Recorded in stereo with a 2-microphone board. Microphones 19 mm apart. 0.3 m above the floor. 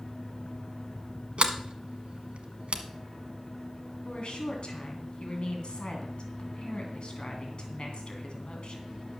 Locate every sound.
1.4 s a sliding door: 70° right (ahead or behind), 1.3 m
4.0 s a woman speaking: 55° left (ahead or behind), 2.5 m